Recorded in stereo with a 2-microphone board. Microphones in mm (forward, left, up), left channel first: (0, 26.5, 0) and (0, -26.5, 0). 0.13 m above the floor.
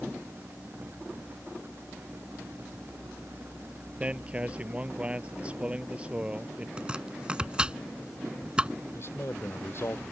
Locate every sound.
4.0 s a man speaking: 20° right (ahead or behind)
6.8 s chopping: 20° right (ahead or behind)
8.9 s a man speaking: 50° left (ahead or behind)